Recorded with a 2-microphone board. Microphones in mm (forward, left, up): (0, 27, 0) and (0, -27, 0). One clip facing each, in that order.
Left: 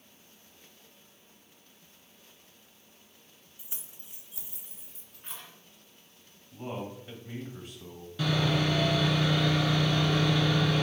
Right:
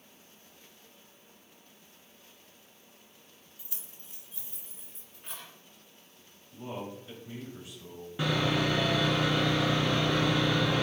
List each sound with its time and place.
3.6 s keys jangling: 20° left (ahead or behind), 0.8 m; by 5.5 s 5° left (ahead or behind), 2 m
6.5 s a man speaking: 45° left (ahead or behind), 1.5 m
8.2 s sawing: 25° right (ahead or behind), 1.1 m